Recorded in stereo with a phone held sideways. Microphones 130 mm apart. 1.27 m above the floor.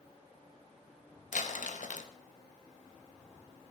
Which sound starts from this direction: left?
Crumpling, at 1.3 s.